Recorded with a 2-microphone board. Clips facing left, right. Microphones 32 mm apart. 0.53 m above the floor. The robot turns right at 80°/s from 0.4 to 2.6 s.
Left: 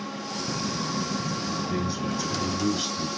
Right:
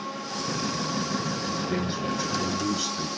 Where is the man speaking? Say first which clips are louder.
Even; 60° right, 5 m; by 3.1 s 15° left, 5 m.